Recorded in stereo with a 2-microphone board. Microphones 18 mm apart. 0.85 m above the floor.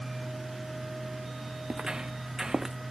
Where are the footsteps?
45° right (ahead or behind); by 2.8 s 30° right (ahead or behind).